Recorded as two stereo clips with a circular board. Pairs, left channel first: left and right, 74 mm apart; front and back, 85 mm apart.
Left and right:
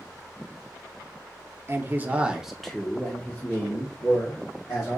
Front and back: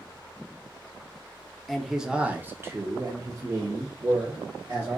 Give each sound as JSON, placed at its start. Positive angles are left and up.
{"t": 1.7, "sound": "a man speaking", "azimuth_deg": -85, "distance_m": 0.7}